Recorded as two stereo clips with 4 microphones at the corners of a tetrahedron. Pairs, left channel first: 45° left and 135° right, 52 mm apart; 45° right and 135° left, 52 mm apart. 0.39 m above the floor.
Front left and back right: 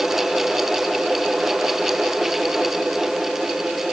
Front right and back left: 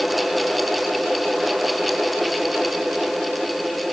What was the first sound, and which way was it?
Only background noise.